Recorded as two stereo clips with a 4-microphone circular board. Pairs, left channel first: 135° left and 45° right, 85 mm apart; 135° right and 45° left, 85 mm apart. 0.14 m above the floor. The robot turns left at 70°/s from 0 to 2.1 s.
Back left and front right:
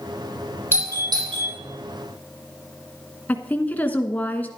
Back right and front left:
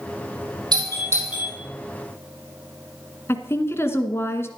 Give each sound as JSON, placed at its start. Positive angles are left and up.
{"t": 0.7, "sound": "a doorbell", "azimuth_deg": 15, "distance_m": 5.5}
{"t": 3.3, "sound": "a woman speaking", "azimuth_deg": -170, "distance_m": 1.3}